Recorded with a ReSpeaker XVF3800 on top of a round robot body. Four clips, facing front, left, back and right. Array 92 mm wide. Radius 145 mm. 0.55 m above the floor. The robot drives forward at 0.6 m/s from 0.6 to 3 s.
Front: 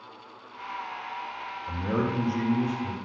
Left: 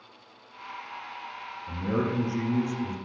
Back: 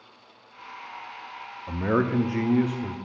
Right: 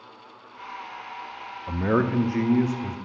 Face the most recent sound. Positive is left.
turn(degrees=-150)